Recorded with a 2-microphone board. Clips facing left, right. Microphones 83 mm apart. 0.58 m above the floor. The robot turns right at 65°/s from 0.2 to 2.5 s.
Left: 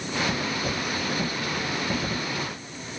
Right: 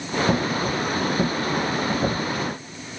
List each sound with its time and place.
Only background noise.